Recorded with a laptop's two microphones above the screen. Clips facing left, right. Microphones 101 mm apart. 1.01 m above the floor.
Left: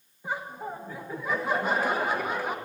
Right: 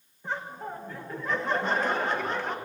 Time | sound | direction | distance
0.2 | laughter | 10° left (ahead or behind) | 1.2 m